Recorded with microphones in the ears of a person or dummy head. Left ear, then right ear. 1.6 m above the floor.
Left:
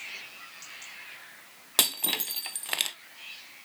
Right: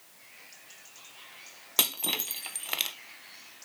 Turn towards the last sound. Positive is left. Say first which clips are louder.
# left 2 dB
turn(degrees=5)  # may be behind; listen again after turning